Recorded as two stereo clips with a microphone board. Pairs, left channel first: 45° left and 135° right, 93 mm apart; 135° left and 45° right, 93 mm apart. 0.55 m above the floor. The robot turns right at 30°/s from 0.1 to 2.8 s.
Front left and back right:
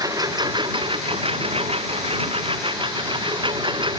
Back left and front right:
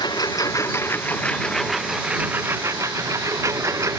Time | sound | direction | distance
0.0 | a lawn mower | 175° left | ?